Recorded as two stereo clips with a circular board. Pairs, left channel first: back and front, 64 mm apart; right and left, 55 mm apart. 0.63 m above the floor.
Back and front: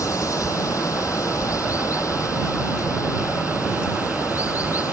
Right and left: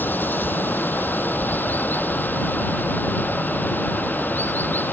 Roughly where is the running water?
Behind right.